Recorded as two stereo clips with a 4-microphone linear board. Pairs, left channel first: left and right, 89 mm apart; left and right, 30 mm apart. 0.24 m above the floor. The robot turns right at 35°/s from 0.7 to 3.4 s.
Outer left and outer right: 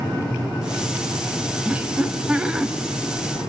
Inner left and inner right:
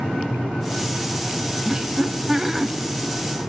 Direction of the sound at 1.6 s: 20° right (ahead or behind).